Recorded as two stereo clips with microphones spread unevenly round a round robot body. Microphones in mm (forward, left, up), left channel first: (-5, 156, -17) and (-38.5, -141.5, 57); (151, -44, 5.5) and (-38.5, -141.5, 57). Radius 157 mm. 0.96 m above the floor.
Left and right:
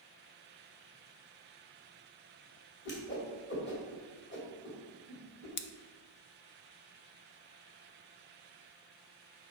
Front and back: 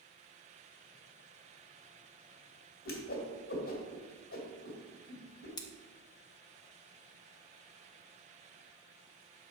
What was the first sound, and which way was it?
A whoosh, 30° left.